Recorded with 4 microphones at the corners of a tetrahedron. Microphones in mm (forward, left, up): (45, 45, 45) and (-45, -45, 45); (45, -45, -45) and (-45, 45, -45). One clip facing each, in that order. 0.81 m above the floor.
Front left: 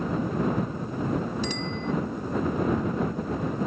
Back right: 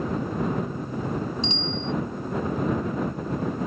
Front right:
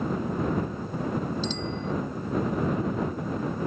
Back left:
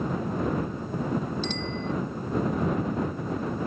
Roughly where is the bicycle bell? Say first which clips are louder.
Back right 1 dB, even; behind.